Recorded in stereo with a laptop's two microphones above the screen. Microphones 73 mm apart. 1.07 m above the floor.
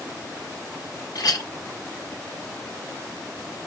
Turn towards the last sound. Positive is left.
turn(degrees=60)  # may be behind; listen again after turning